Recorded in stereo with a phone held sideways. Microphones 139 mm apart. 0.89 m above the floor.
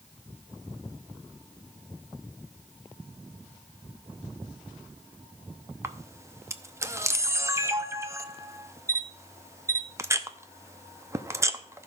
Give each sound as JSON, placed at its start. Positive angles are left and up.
{"t": 5.8, "sound": "a camera shutter", "side_deg": -20, "distance_m": 0.7}